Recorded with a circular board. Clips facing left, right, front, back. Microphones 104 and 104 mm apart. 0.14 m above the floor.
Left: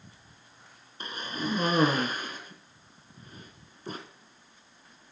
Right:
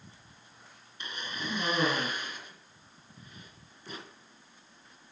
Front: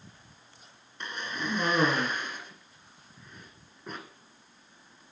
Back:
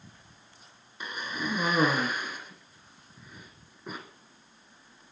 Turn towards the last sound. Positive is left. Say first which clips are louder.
# left 5 dB, back 1 dB
turn(degrees=100)